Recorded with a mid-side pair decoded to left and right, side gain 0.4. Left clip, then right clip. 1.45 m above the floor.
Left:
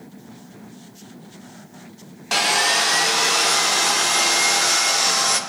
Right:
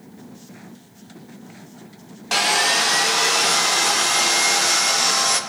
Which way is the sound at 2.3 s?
Straight ahead.